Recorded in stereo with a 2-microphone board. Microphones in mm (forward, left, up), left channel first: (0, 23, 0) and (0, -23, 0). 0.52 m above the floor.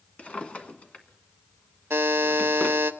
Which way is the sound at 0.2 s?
30° left (ahead or behind).